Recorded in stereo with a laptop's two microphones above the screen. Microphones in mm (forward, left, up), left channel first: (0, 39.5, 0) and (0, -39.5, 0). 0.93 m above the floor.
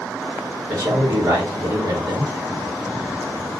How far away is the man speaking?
About 1.7 m.